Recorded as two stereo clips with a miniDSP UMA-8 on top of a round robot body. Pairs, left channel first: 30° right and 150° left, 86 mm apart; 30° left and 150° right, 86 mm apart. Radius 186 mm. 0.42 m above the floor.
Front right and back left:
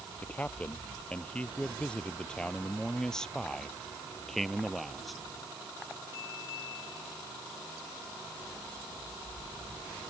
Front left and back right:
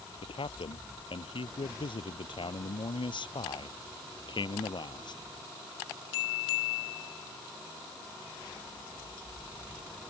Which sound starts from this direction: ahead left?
A man speaking, at 0.2 s.